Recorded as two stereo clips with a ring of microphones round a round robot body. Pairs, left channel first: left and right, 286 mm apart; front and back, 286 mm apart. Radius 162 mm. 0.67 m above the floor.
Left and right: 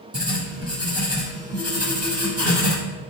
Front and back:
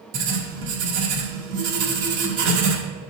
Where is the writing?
165° right, 1.6 m.